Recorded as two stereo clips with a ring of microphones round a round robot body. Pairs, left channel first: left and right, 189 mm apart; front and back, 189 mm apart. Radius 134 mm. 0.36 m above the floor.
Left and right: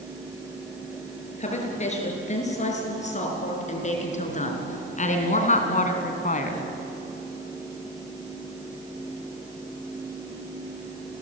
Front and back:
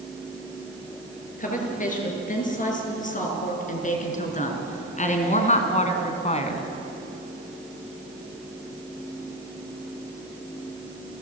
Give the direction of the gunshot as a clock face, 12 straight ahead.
No gunshot in this recording.